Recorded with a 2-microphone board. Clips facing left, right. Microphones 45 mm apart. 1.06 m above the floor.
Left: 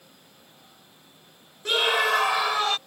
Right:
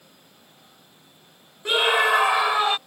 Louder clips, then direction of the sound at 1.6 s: Right 3 dB; 15° right (ahead or behind).